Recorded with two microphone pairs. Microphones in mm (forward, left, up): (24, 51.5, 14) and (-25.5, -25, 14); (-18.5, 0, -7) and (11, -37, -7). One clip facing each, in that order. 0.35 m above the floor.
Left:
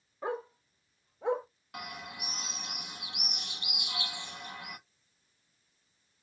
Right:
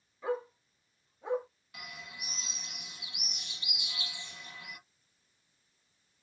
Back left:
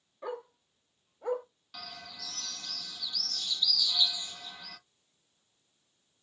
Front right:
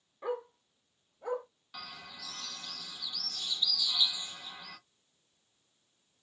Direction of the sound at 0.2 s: 30° left.